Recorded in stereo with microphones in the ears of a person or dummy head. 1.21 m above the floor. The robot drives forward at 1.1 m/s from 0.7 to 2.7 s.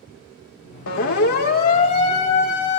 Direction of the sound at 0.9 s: 60° left (ahead or behind).